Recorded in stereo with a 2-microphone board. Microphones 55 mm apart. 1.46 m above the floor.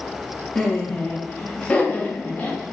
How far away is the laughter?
About 3 m.